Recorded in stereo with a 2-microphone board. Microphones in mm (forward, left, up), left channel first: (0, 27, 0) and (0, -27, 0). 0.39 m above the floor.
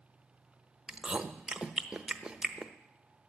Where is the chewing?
15° right (ahead or behind), 0.8 m.